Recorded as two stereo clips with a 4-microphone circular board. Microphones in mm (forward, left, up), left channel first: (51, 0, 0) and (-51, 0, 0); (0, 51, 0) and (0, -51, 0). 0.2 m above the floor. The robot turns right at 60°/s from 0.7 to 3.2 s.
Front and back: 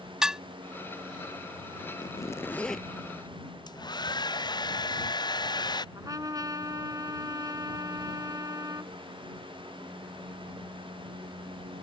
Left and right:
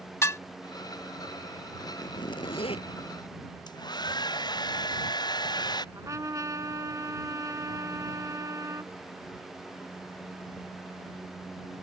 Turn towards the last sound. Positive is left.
turn(degrees=-135)